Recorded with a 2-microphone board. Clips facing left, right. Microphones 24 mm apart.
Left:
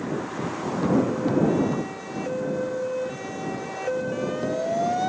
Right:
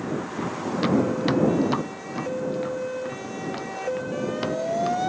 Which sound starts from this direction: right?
Running footsteps, at 0.4 s.